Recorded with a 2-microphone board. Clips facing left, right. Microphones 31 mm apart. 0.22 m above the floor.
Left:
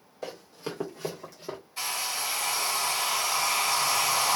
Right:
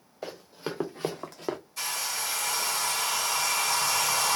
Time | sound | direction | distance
0.2 | running footsteps | 10° right (ahead or behind) | 1.3 m
1.8 | a hair dryer | 20° left (ahead or behind) | 1.4 m